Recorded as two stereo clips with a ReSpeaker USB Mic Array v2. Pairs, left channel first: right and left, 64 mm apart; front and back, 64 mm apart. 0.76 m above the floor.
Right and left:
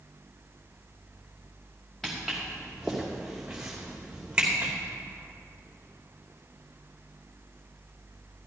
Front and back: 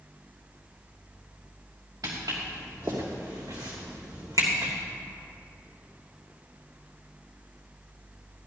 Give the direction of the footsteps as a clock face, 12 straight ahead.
6 o'clock.